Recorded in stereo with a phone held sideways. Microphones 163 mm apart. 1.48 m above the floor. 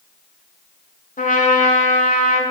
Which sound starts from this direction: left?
A trumpet, at 1.2 s.